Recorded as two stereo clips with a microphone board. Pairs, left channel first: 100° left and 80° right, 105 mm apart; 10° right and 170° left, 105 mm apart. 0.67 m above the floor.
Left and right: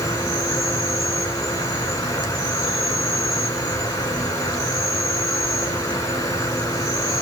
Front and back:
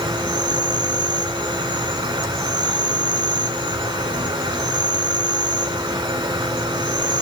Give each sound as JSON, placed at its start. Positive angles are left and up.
{"t": 0.0, "sound": "an insect", "azimuth_deg": 150, "distance_m": 0.9}